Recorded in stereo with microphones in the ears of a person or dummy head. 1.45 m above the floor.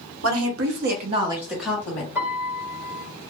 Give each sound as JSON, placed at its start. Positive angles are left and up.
{"t": 0.2, "sound": "a woman speaking", "side_deg": -80, "distance_m": 1.0}
{"t": 2.1, "sound": "a piano", "side_deg": -15, "distance_m": 1.2}